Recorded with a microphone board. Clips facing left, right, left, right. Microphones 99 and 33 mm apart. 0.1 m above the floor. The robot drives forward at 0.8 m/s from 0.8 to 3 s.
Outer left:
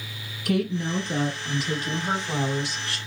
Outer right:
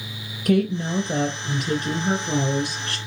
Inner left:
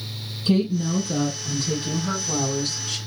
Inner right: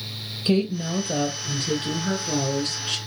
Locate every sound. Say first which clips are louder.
0.5 s a woman speaking: outer right 4 dB, inner left 1 dB; 45° right (ahead or behind), 3 m; by 3.0 s 50° right (ahead or behind), 2.5 m